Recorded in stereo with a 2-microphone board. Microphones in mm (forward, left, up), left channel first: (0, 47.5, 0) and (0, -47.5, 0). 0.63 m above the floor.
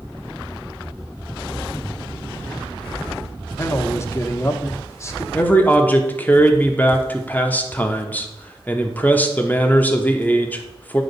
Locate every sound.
3.6 s a man speaking: 30° left (ahead or behind), 0.9 m
5.3 s a man speaking: 15° left (ahead or behind), 1.0 m